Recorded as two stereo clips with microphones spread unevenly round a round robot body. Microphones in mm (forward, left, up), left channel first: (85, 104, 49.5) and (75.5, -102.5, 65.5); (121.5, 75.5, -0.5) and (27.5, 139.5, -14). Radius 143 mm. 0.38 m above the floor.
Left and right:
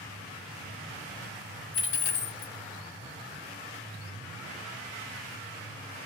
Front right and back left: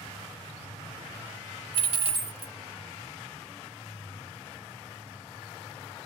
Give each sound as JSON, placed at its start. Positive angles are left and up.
{"t": 1.7, "sound": "a dropped coin", "azimuth_deg": 120, "distance_m": 0.7}